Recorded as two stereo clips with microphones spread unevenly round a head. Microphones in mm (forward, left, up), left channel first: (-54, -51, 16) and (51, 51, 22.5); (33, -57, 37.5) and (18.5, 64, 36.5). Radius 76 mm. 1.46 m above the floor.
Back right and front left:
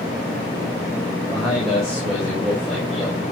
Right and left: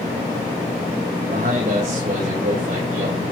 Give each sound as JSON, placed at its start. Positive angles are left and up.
{"t": 1.3, "sound": "a man speaking", "azimuth_deg": 135, "distance_m": 5.5}